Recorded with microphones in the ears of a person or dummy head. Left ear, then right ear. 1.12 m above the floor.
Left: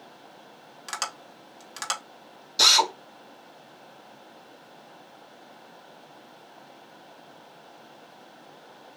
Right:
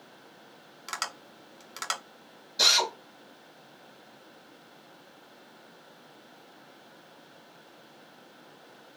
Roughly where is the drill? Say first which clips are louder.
Left 4 dB; left.